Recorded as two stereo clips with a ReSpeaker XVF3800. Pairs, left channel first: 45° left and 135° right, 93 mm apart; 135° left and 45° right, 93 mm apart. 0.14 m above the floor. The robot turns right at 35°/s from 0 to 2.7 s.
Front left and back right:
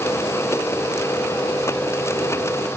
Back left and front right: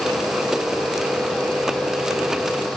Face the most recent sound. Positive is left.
No sound to turn to.